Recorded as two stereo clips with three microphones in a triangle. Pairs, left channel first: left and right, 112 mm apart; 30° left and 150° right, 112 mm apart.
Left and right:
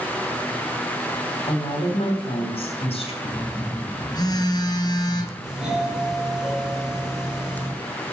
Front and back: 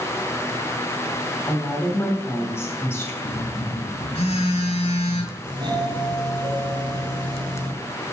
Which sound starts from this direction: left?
A woman speaking, at 1.5 s.